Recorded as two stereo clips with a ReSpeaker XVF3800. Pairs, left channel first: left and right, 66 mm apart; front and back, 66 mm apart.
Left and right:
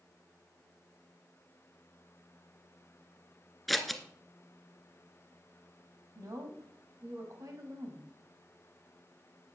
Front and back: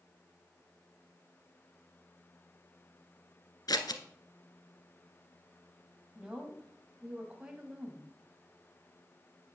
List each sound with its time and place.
3.7 s scissors: straight ahead, 1.2 m
6.2 s a woman speaking: 105° right, 2.5 m